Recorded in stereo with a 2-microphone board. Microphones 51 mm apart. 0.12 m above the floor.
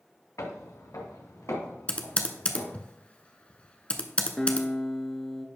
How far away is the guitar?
About 0.7 m.